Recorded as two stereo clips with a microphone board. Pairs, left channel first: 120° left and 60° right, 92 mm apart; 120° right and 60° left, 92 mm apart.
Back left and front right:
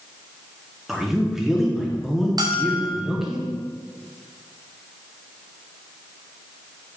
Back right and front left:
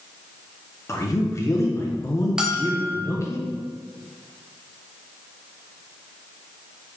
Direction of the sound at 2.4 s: 20° right.